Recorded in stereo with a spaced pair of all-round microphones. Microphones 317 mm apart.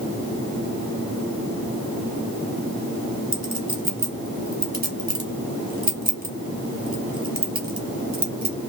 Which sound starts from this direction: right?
A clink, at 3.3 s.